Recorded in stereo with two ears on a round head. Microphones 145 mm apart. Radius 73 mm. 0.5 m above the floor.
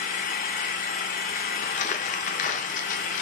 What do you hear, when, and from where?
0.0 s an engine running: 50° left (ahead or behind), 0.7 m
1.6 s crumpling: 45° left (ahead or behind), 0.5 m